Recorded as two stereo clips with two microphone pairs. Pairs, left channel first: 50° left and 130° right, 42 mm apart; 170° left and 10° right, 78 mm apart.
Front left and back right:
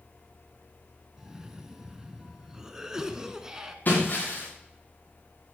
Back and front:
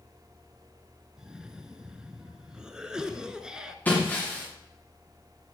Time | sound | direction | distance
1.2 | a cough | 75° right | 1.1 m
3.9 | breaking glass | 100° left | 7 m